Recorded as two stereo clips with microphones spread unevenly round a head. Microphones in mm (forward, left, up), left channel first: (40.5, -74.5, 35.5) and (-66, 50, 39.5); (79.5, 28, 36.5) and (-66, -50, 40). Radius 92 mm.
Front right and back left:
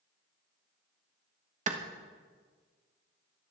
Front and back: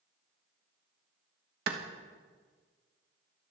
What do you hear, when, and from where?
1.7 s a clap: 175° left, 1.4 m